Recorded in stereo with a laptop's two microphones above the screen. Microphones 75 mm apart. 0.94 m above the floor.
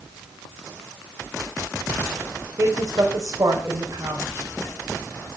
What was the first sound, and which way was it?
A woman speaking, 45° right (ahead or behind).